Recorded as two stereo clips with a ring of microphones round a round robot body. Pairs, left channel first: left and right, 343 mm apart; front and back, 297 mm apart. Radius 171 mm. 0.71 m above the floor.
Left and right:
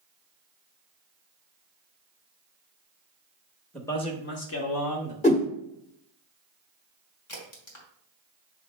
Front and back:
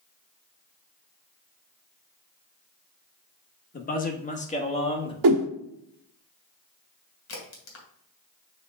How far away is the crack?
About 2.5 m.